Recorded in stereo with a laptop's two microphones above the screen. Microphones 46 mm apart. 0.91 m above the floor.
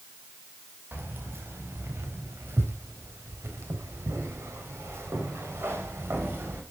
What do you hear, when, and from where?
0.9 s keys jangling: 60° right (ahead or behind), 3.5 m; by 6.6 s 65° right (ahead or behind), 3 m